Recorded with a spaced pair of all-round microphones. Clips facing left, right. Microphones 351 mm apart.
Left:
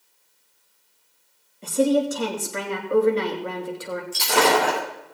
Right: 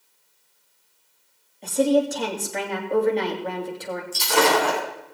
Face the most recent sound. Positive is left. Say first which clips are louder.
# even
turn(degrees=70)  # may be behind; listen again after turning